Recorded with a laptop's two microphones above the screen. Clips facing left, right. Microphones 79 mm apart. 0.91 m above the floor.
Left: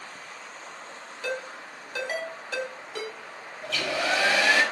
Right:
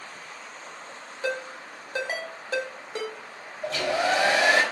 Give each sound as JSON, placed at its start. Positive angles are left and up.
{"t": 1.2, "sound": "a ringtone", "side_deg": -25, "distance_m": 2.5}
{"t": 3.6, "sound": "a hair dryer", "side_deg": -35, "distance_m": 5.5}